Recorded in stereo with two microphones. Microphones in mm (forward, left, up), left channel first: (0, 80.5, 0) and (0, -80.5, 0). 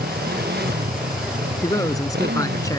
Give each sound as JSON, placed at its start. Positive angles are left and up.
{"t": 0.0, "sound": "a motorcycle", "side_deg": -85}
{"t": 1.6, "sound": "a man speaking", "side_deg": 20}